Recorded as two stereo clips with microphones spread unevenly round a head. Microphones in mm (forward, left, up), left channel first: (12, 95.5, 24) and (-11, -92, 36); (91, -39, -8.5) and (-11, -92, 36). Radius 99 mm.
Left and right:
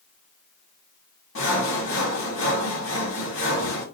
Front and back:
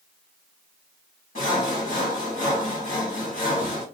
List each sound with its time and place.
1.4 s sawing: 50° left, 1.3 m